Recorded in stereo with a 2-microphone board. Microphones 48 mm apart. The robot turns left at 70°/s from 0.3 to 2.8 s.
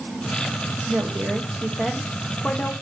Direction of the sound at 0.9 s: 95° right.